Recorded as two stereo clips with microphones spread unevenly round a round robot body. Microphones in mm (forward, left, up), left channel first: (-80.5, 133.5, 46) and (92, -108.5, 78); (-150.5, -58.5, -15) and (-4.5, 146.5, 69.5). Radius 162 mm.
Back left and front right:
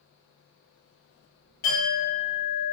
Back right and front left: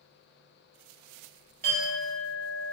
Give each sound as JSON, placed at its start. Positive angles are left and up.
{"t": 1.6, "sound": "a clink", "azimuth_deg": 100, "distance_m": 1.8}